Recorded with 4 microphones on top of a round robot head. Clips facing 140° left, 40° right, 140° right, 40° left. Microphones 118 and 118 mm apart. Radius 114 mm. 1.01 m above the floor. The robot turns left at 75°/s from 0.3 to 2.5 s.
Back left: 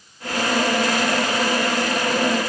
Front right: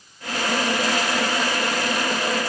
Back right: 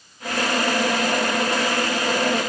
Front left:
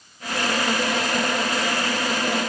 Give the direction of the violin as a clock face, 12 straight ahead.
I don't hear a violin.